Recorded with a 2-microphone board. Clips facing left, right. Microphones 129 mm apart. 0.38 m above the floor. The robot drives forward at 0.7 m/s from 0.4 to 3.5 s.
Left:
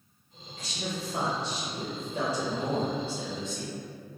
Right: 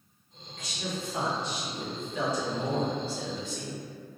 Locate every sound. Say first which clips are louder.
0.6 s a man speaking: even; 30° left (ahead or behind), 1.5 m; by 3.8 s 25° left (ahead or behind), 1.9 m